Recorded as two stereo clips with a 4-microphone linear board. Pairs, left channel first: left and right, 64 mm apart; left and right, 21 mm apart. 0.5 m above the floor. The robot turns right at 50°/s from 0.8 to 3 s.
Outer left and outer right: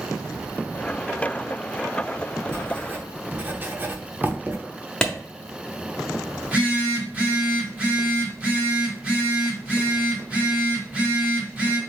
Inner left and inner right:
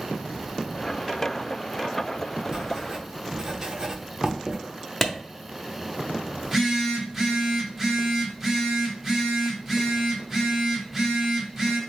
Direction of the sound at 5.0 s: 10° left (ahead or behind).